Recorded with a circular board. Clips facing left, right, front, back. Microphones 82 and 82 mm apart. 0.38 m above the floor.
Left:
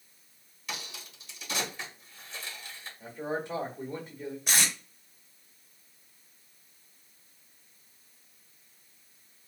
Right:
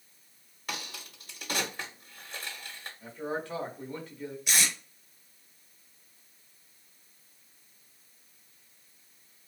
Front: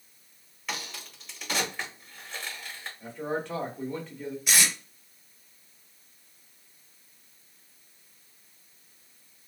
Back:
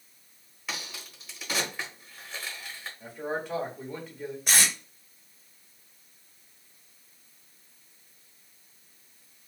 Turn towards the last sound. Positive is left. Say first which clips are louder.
# even, even
turn(degrees=140)